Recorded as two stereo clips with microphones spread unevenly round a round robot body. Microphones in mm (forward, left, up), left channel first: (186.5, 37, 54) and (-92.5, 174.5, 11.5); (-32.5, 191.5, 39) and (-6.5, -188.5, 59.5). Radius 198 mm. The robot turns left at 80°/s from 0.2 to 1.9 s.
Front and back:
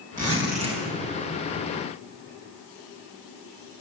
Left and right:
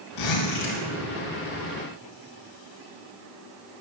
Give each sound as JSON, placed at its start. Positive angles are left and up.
{"t": 0.2, "sound": "a zipper", "azimuth_deg": 115, "distance_m": 4.0}